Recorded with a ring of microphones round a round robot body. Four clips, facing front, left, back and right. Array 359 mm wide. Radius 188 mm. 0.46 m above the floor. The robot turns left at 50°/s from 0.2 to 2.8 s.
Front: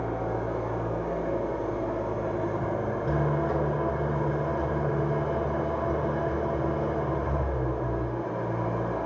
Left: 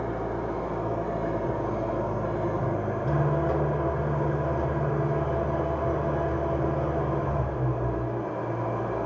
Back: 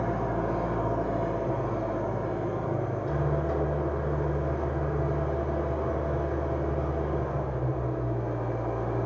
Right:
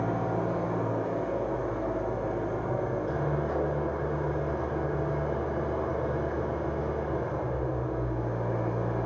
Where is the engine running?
160° right, 2.5 m; by 9.1 s 70° left, 2.5 m.